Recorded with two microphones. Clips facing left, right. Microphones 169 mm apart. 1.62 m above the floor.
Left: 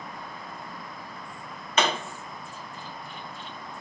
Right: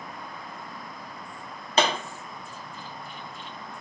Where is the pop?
35° right (ahead or behind), 0.9 m.